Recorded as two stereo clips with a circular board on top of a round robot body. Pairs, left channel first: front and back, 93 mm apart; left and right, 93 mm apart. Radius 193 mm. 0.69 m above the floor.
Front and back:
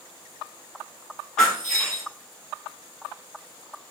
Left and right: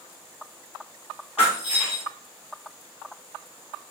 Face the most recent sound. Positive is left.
turn(degrees=85)